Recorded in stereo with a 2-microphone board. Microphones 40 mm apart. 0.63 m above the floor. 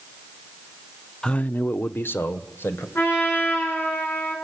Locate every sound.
1.2 s a man speaking: 15° left (ahead or behind), 0.5 m; by 2.9 s 80° left, 2.5 m
3.0 s a trumpet: 70° left (ahead or behind), 8 m